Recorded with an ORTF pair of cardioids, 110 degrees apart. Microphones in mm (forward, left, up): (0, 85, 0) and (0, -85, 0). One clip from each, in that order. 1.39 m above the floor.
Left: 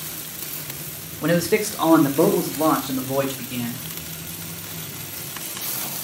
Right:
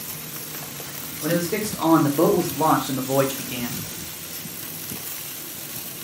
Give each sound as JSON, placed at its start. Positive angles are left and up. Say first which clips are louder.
{"t": 1.2, "sound": "a man speaking", "louder": "left 4 dB", "azimuth_deg": 50, "distance_m": 1.1}